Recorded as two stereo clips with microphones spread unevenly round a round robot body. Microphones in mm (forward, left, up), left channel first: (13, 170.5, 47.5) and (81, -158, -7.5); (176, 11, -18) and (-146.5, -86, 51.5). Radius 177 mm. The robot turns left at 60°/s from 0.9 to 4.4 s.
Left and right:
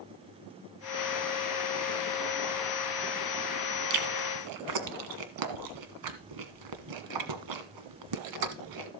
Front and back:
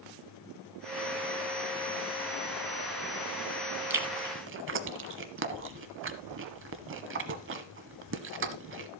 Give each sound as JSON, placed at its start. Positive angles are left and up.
{"t": 3.9, "sound": "chewing", "azimuth_deg": -75, "distance_m": 1.4}